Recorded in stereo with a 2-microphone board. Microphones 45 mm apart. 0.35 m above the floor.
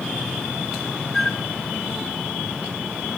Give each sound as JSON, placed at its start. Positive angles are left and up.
{"t": 1.1, "sound": "a flute", "side_deg": 5, "distance_m": 1.2}